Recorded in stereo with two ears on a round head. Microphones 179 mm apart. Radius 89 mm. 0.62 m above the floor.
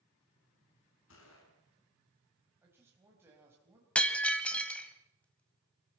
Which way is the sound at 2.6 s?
10° right (ahead or behind).